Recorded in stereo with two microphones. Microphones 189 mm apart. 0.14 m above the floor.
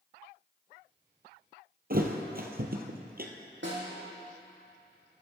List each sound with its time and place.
1.9 s a thud: 50° right (ahead or behind), 1.9 m
3.6 s a snare drum: 75° right (ahead or behind), 6.5 m